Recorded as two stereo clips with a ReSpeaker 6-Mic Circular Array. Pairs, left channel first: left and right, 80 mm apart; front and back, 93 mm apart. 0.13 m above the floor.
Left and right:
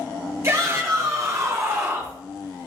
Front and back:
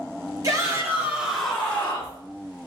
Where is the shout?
135° right, 2.5 m; by 2.2 s 45° right, 2 m.